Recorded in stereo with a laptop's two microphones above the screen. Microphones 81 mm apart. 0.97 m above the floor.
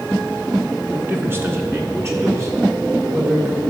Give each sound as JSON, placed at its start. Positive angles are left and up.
{"t": 0.9, "sound": "a man speaking", "side_deg": -20, "distance_m": 1.0}